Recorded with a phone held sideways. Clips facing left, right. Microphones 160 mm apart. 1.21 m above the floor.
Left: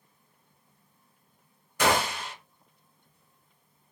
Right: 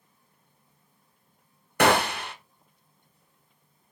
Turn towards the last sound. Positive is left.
turn(degrees=-65)  # may be behind; listen again after turning